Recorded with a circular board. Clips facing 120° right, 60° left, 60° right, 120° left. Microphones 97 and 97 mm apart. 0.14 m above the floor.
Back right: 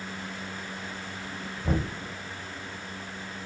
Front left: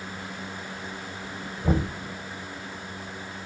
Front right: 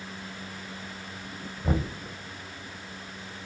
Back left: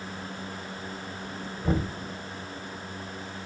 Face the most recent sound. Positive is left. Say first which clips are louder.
# front left 4 dB, back left 1 dB
turn(degrees=20)